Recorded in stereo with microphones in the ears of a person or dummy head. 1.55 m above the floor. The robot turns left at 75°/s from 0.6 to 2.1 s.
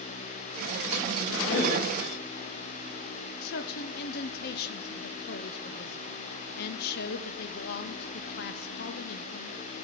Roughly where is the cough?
Left.